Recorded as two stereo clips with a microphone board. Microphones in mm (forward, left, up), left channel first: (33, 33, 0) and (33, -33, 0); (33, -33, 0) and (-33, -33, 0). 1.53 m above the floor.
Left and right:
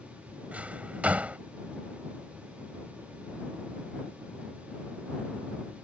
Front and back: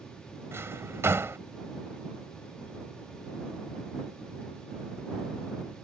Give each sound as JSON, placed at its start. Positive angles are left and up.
{"t": 0.5, "sound": "a drawer", "azimuth_deg": -150}